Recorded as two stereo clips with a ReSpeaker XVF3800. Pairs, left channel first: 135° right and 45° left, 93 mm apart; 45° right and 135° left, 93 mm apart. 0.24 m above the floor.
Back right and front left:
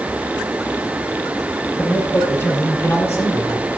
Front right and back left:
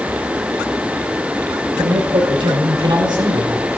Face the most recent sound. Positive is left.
turn(degrees=160)